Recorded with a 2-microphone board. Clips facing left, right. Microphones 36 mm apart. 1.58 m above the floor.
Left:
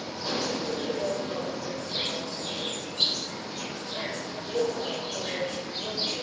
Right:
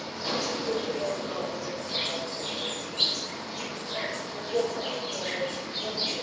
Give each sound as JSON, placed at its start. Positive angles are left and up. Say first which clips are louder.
{"t": 0.0, "sound": "an insect", "louder": "even", "side_deg": -45, "distance_m": 0.9}